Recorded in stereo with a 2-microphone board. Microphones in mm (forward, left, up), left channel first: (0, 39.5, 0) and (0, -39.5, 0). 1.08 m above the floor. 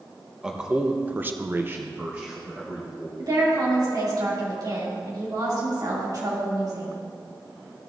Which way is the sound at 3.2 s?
55° right (ahead or behind).